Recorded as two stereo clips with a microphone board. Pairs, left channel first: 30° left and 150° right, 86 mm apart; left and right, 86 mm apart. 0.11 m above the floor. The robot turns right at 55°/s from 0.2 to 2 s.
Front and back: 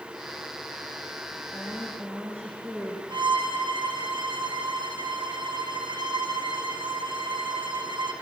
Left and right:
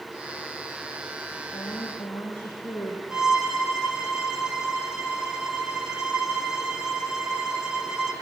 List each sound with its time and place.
1.5 s a woman speaking: 125° left, 6.5 m; by 3.0 s 150° left, 6.5 m
3.1 s a violin: 170° right, 2.5 m